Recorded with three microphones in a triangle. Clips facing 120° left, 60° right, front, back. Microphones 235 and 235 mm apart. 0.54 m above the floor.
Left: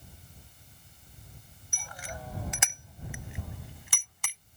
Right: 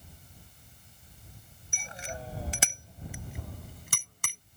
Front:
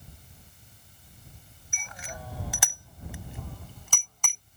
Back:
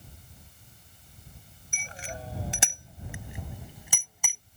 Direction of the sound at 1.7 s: 125° right.